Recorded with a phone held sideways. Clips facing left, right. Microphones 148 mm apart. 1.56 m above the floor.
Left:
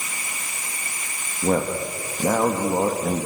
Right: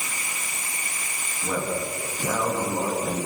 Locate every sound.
1.4 s a man speaking: 50° left (ahead or behind), 2.5 m